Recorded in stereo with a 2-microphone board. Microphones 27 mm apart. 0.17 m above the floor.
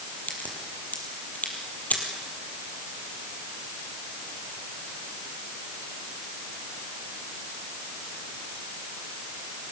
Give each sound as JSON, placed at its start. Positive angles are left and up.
{"t": 0.3, "sound": "a crack", "side_deg": 75, "distance_m": 4.5}